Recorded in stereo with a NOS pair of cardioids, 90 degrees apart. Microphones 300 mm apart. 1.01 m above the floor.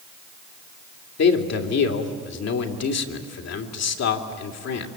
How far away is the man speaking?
About 2.5 m.